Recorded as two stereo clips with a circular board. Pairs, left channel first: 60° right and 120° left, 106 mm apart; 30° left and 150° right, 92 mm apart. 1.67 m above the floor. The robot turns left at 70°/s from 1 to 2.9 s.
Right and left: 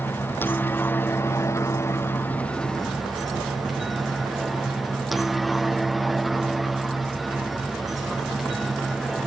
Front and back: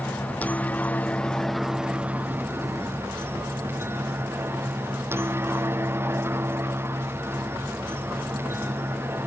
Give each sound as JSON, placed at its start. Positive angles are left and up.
{"t": 0.0, "sound": "a helicopter", "azimuth_deg": -20}